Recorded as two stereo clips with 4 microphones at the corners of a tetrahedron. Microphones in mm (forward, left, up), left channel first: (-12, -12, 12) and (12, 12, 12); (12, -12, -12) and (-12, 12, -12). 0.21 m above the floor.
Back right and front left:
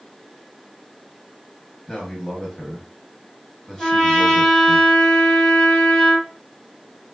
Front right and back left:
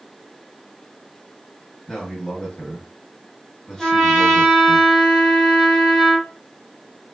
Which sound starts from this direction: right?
A man speaking, at 1.9 s.